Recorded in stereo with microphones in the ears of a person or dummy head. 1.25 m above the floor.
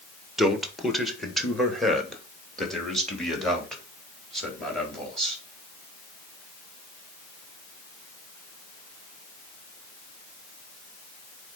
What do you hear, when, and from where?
0.4 s a man speaking: 5° right (ahead or behind), 1.4 m; by 5.4 s centre (ahead or behind), 4 m